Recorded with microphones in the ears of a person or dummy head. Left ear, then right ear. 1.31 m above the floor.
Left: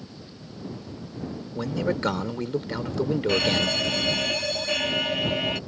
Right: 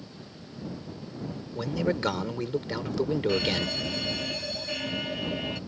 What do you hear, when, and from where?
1.6 s a man speaking: 10° right (ahead or behind)
3.3 s a fire alarm: 35° left (ahead or behind)